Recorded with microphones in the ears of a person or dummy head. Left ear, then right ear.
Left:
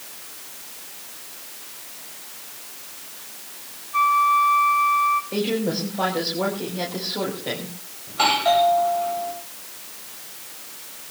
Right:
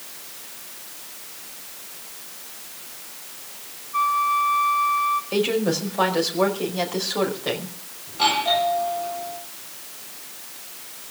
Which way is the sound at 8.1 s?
50° left (ahead or behind).